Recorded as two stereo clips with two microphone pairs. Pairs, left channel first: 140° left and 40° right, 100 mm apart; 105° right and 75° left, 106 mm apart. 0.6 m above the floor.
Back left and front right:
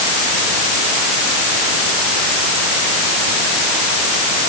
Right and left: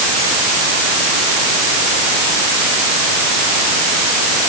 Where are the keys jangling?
No keys jangling in this recording.